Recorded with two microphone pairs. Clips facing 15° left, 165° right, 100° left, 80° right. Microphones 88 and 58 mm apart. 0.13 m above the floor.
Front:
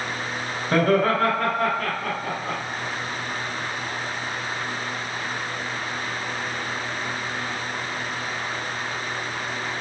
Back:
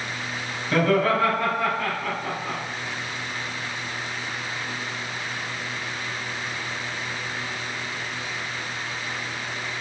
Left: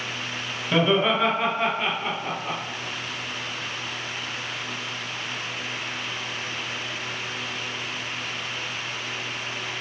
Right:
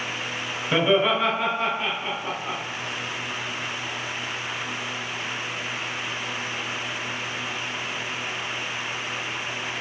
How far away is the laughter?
About 1.4 m.